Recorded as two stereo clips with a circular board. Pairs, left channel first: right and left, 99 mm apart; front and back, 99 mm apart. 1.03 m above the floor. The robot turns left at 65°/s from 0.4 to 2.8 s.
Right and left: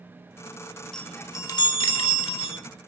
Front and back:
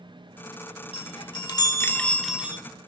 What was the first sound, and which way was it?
A chime, 5° right.